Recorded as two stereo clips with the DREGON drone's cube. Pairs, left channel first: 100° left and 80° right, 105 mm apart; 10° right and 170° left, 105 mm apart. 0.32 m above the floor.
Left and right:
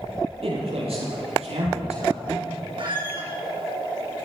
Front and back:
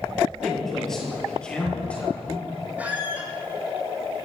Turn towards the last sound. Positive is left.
turn(degrees=-115)